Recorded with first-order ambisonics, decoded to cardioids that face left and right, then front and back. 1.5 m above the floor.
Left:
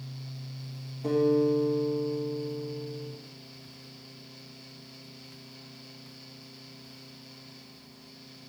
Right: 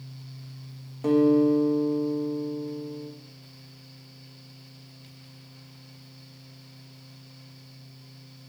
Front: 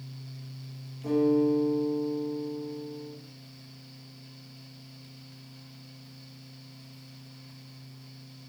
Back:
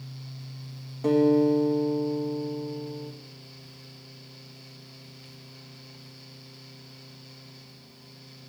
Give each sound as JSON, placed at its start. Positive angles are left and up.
{"t": 1.0, "sound": "a guitar", "azimuth_deg": -135, "distance_m": 1.9}